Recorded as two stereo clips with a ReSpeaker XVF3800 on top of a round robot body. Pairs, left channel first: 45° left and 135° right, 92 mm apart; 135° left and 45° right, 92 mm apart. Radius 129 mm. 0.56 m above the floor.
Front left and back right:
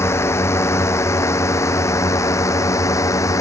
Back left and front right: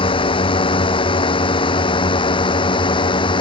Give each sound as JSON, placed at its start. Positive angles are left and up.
{"t": 0.0, "sound": "a drone", "azimuth_deg": 105}